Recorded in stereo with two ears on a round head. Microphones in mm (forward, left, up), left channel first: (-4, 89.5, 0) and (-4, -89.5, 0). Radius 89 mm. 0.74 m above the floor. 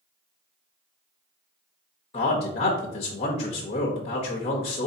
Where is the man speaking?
30° left (ahead or behind), 0.8 m.